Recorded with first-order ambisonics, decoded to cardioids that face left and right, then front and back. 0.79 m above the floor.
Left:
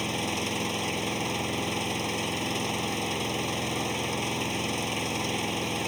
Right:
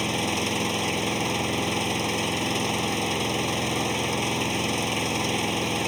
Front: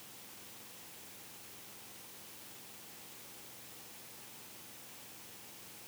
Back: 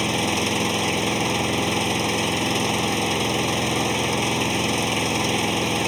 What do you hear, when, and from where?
0.0 s an engine running: 170° right